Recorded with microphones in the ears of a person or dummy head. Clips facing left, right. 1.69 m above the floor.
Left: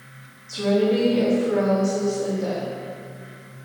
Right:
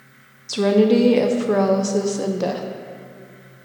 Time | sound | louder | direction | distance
0.5 | a woman speaking | right 5 dB | 70° right (ahead or behind) | 0.6 m